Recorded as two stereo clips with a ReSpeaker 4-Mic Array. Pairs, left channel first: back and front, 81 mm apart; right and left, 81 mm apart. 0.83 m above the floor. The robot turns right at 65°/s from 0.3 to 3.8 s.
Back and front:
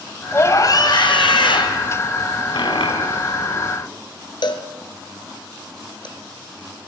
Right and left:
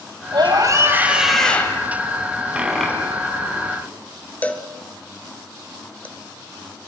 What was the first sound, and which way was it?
A scream, 115° left.